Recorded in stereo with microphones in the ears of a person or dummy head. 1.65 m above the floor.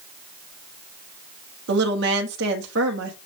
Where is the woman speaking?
65° right (ahead or behind), 1.0 m.